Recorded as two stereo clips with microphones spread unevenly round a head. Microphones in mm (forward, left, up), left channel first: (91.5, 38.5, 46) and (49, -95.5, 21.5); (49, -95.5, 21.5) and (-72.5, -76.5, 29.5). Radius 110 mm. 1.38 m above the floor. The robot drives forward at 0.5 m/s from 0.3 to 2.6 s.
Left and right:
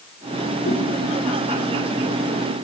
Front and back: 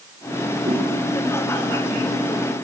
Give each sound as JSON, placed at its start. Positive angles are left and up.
{"t": 0.7, "sound": "a whoosh", "azimuth_deg": 105, "distance_m": 1.9}